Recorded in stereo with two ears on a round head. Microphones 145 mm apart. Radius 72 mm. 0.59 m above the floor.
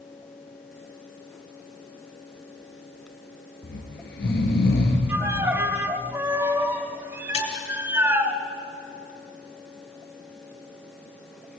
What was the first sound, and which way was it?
Snoring, 65° left (ahead or behind).